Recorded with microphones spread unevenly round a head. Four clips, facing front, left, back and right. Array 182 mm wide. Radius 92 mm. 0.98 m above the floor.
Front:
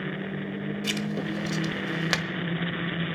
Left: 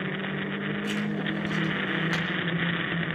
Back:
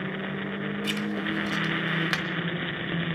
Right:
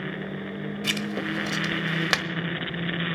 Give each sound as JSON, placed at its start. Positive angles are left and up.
{"t": 0.8, "sound": "writing", "azimuth_deg": -70, "distance_m": 1.3}